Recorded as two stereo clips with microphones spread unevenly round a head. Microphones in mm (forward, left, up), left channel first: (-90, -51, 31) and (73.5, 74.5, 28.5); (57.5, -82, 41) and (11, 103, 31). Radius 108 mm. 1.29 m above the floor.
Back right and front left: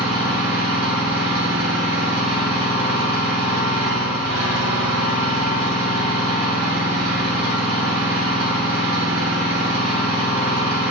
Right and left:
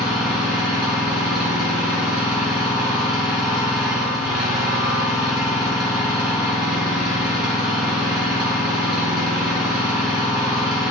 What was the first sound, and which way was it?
An engine running, 15° left.